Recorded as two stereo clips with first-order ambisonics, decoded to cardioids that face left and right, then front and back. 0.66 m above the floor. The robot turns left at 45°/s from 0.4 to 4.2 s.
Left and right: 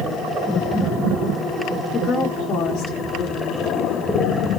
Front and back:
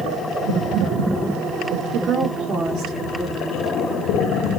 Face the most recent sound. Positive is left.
turn(degrees=50)